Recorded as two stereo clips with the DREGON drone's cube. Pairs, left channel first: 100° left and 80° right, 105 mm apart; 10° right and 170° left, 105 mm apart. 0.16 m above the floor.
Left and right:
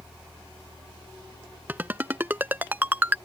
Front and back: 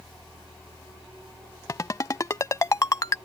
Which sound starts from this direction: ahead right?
A ringtone, at 1.7 s.